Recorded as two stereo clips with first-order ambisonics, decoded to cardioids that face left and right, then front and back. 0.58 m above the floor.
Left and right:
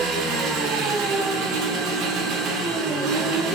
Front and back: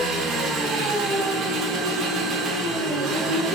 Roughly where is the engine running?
Behind right.